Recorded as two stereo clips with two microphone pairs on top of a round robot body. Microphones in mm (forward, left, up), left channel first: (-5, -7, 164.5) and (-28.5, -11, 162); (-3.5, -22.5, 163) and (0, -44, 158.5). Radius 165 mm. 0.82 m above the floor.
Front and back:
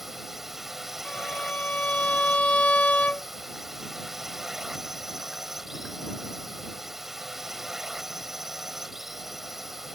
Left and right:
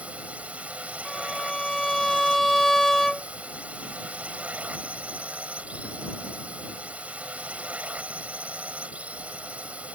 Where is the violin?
20° left.